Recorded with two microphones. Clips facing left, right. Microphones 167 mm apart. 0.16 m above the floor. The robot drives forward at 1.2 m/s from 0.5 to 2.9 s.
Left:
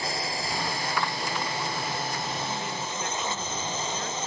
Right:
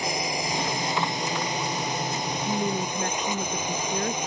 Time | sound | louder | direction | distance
0.0 | a drone | right 3 dB | 15° right (ahead or behind) | ?
2.5 | a woman speaking | right 6 dB | 50° right (ahead or behind) | ?